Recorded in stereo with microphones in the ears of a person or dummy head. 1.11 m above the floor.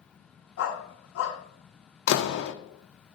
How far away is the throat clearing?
No throat clearing in this recording.